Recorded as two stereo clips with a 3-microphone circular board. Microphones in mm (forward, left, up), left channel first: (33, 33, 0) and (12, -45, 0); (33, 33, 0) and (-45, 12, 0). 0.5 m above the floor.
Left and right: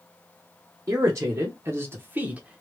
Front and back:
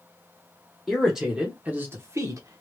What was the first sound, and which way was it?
A man speaking, 70° right.